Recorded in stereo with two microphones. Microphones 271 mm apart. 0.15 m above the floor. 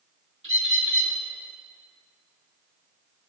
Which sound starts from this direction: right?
A bird, at 0.4 s.